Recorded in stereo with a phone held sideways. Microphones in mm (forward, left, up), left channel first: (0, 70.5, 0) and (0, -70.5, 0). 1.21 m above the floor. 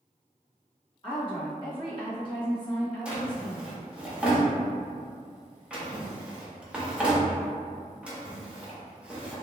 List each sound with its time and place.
1.0 s a woman speaking: 35° left (ahead or behind), 1.2 m
3.0 s a drawer: 10° right (ahead or behind), 0.7 m